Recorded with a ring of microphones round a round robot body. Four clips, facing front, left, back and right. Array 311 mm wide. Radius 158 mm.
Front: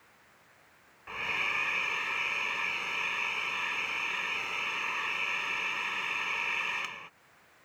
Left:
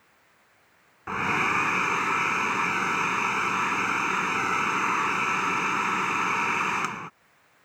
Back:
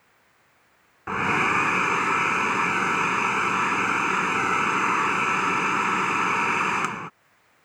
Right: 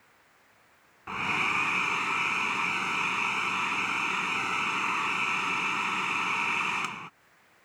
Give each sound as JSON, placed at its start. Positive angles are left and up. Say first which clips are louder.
{"t": 1.1, "sound": "a hair dryer", "louder": "left 5 dB, back 14 dB", "azimuth_deg": 160}